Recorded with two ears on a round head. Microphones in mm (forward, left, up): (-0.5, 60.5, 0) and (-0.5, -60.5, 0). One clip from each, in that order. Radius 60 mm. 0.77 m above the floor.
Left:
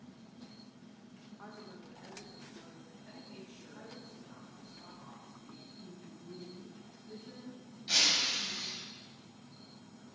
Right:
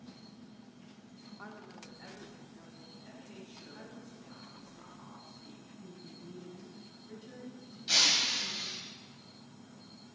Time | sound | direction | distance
1.4 | a woman speaking | 65° right (ahead or behind) | 1.9 m
3.0 | a man speaking | 60° right (ahead or behind) | 6.5 m
5.8 | a woman speaking | 70° right (ahead or behind) | 6 m
7.9 | breaking glass | 20° right (ahead or behind) | 3 m